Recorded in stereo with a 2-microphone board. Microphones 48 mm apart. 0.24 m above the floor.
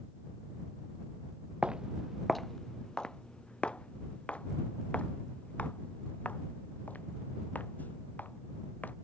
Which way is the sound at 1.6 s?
20° right (ahead or behind).